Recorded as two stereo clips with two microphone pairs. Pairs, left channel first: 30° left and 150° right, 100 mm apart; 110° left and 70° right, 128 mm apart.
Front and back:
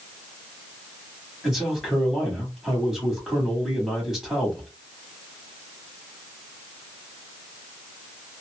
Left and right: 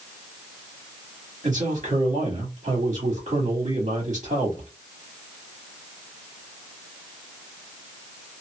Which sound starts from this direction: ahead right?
A man speaking, at 1.4 s.